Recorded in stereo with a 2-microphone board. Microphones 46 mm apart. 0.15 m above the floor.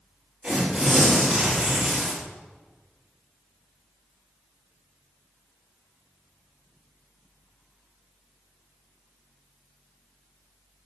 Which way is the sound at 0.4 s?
5° right (ahead or behind).